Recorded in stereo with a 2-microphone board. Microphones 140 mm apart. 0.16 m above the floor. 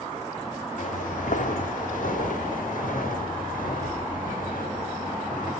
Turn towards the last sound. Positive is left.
turn(degrees=80)